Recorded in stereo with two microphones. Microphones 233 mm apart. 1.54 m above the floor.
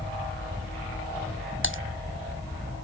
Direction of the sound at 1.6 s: 55° left (ahead or behind).